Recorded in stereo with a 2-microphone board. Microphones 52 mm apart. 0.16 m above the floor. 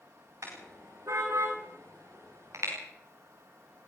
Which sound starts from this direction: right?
A car horn, at 0.4 s.